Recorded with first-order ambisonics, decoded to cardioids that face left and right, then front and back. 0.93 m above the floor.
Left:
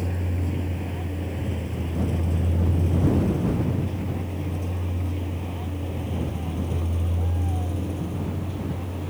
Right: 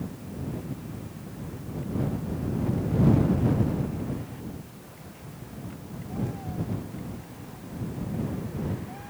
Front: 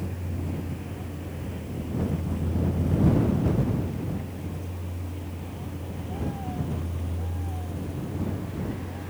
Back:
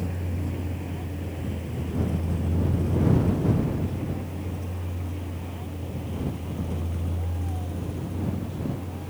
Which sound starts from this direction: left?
A vehicle, at 0.0 s.